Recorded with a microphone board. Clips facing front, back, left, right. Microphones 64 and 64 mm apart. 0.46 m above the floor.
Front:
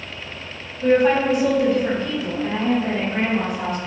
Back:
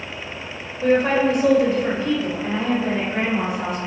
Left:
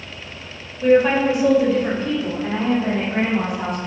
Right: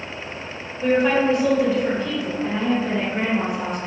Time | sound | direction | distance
0.8 | a woman speaking | 170° right | 2 m